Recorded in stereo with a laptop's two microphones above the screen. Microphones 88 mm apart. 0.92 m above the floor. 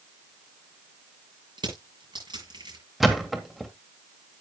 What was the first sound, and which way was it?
Crushing, 60° right (ahead or behind).